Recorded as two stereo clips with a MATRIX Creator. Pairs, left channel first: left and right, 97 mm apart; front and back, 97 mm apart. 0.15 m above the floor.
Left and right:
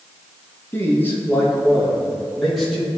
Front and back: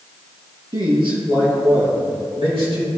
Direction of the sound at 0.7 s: 150° left.